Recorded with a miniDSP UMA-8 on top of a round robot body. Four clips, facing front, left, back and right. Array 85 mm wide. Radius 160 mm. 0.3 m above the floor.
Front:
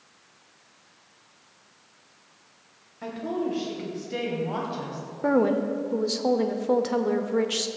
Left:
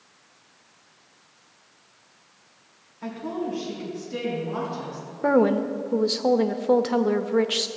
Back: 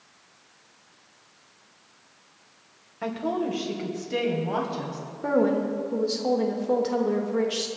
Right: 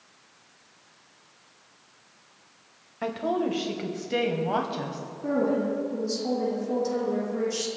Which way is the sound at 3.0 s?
115° right.